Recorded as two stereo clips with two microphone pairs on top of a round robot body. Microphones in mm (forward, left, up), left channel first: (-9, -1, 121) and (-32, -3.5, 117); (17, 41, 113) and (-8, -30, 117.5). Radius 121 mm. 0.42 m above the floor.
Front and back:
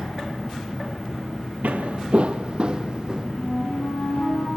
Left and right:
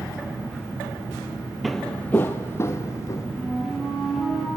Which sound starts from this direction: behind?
Footsteps, at 1.6 s.